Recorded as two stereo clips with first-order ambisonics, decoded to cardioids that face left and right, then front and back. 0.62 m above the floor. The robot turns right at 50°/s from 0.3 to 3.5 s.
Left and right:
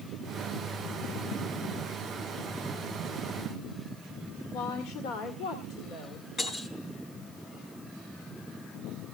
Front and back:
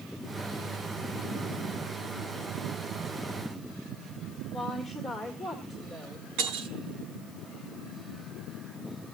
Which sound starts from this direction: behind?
Breaking glass, at 6.4 s.